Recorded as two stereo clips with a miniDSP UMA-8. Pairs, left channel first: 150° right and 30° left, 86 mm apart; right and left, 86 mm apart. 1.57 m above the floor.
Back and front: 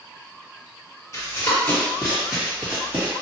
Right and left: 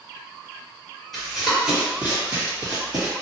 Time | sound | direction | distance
1.1 | running footsteps | 175° right | 1.9 m